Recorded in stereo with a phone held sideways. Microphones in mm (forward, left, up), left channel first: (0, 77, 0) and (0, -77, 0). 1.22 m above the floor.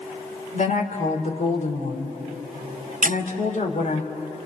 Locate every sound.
0.5 s a woman speaking: 55° left (ahead or behind), 3 m
3.0 s a squeak: 60° right (ahead or behind), 0.7 m